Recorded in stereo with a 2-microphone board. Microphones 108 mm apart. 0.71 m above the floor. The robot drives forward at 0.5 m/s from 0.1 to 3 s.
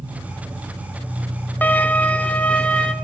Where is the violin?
15° left (ahead or behind), 0.9 m; by 2.9 s 10° left (ahead or behind), 1.5 m.